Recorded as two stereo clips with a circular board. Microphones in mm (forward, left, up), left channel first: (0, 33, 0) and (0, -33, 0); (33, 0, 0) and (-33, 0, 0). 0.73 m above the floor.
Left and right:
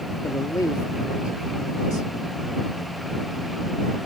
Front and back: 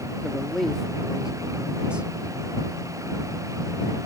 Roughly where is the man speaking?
Left.